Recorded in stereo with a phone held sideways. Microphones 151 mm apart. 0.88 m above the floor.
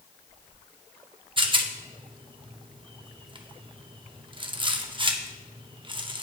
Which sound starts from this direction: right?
A rattle, at 1.4 s.